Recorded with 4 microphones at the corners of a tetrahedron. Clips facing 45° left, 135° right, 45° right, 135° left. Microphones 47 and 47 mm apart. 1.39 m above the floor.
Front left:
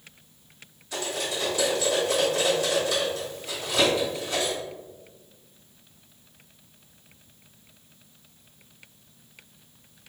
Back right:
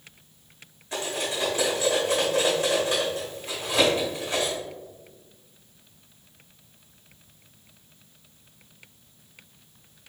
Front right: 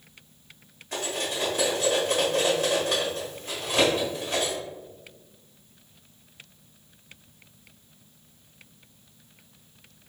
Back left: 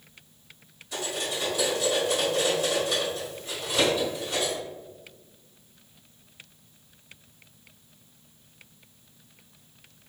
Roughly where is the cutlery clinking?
Right.